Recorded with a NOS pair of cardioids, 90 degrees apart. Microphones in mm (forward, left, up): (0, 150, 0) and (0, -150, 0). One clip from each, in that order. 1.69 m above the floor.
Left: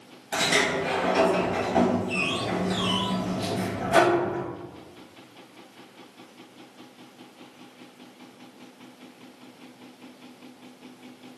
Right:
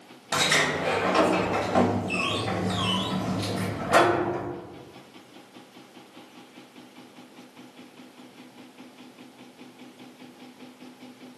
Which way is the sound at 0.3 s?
45° right.